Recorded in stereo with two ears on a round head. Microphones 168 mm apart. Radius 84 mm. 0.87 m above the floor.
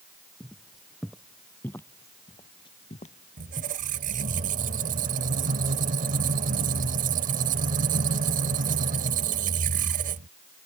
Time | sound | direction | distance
0.4 | footsteps | 5° right (ahead or behind) | ?
3.4 | a squeak | 45° right (ahead or behind) | ?